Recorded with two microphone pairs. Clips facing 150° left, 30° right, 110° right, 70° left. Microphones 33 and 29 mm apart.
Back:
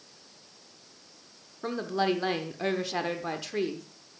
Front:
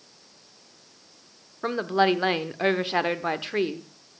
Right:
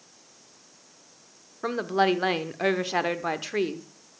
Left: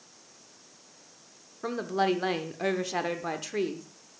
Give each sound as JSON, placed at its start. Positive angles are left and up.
{"t": 1.6, "sound": "a woman speaking", "azimuth_deg": -60, "distance_m": 0.9}